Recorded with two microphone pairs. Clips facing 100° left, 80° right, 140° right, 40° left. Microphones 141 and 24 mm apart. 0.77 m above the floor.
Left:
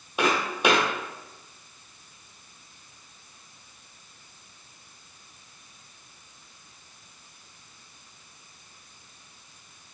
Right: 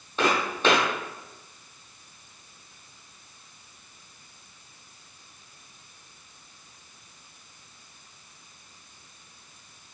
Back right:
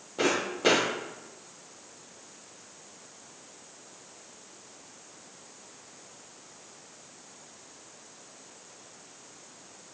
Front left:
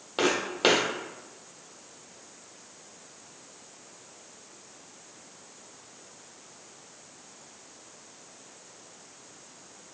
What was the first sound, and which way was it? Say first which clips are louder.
Footsteps: even, front left 1 dB; 30° left.